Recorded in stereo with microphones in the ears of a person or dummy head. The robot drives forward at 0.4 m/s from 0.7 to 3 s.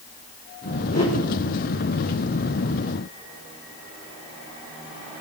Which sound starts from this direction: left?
A whoosh, at 0.9 s.